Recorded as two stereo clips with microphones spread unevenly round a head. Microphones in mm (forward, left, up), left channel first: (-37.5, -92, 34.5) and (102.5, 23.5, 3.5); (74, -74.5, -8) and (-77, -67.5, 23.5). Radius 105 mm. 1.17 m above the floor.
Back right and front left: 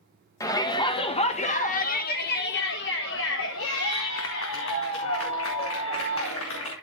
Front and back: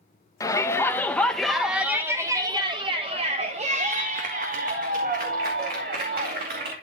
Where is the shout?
65° right, 1.5 m; by 6.7 s 170° right, 2.5 m.